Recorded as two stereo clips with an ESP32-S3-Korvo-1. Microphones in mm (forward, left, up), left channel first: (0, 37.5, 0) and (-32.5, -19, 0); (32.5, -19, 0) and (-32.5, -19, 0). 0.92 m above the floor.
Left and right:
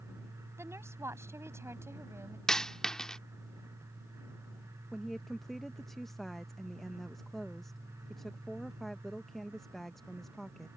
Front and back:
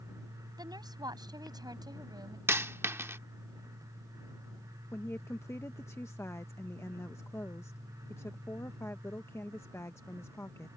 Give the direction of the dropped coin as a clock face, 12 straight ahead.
7 o'clock.